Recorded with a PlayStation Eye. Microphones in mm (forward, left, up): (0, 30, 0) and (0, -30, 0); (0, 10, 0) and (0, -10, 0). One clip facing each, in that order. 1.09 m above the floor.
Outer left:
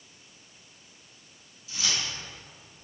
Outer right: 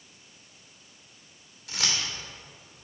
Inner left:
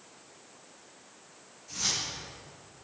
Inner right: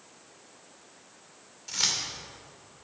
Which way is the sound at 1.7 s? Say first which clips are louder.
Outer right 1 dB, inner right 3 dB; 70° right (ahead or behind).